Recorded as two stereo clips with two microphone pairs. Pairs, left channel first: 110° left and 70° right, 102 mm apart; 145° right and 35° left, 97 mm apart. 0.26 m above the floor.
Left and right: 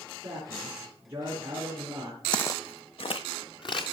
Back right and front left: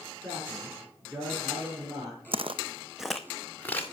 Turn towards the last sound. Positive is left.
turn(degrees=150)